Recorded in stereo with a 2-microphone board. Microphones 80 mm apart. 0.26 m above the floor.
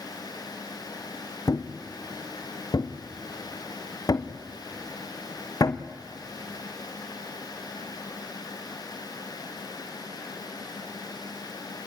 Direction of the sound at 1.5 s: 50° left (ahead or behind).